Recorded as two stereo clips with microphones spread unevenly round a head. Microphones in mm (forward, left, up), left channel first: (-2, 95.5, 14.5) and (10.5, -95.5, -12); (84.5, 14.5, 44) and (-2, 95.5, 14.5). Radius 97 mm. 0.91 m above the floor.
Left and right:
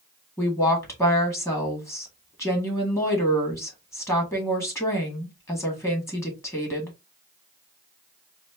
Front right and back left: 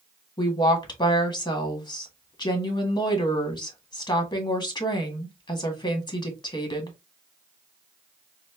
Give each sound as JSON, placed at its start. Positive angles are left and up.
{"t": 0.4, "sound": "a woman speaking", "azimuth_deg": 15, "distance_m": 1.6}